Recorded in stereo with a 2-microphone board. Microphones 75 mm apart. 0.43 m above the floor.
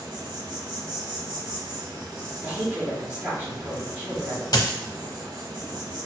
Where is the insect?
80° right, 0.9 m.